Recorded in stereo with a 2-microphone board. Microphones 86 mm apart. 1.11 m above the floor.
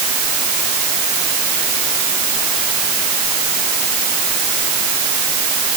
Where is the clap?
No clap in this recording.